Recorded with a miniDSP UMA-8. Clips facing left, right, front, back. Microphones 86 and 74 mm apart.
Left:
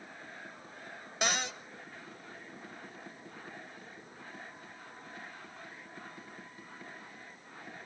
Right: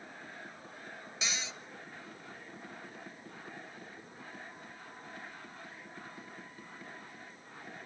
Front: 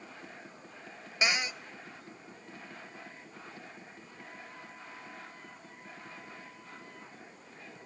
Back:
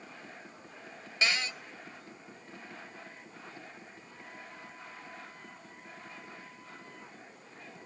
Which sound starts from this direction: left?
A cupboard door, at 1.2 s.